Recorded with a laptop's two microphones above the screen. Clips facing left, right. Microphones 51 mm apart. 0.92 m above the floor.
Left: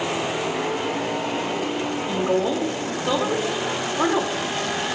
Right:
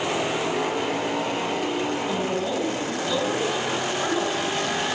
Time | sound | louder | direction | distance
2.1 | a woman speaking | left 4 dB | 75° left (ahead or behind) | 2 m